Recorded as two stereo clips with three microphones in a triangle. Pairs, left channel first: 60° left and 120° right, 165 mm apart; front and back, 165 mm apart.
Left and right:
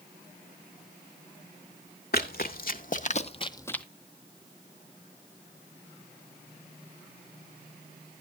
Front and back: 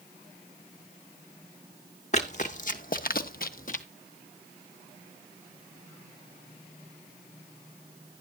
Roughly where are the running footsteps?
Ahead left.